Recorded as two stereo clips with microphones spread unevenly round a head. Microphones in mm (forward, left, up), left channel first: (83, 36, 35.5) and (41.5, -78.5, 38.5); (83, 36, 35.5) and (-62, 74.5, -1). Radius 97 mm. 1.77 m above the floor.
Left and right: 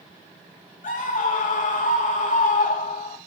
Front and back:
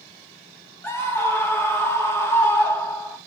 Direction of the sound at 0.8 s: 60° left.